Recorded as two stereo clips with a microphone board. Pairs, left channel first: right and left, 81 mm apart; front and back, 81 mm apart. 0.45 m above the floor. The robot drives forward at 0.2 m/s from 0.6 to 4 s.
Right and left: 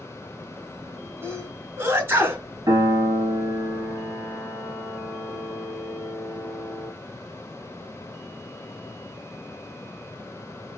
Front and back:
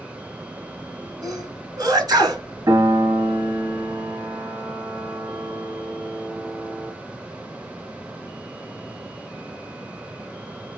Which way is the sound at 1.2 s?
145° left.